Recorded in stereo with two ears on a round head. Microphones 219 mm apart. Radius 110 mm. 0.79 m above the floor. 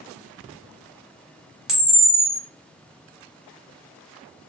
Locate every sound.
1.7 s a camera shutter: centre (ahead or behind), 0.7 m